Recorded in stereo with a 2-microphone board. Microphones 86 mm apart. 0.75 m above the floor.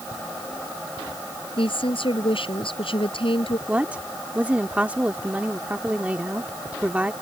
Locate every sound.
1.6 s a woman speaking: 85° left
3.7 s a woman speaking: 15° right (ahead or behind)